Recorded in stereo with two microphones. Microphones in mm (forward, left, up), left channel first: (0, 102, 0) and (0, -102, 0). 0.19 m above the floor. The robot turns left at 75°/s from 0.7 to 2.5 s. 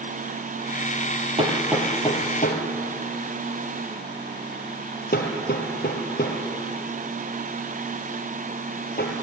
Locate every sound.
1.4 s hammering: 30° right (ahead or behind), 3 m; by 9.1 s 50° left (ahead or behind), 3 m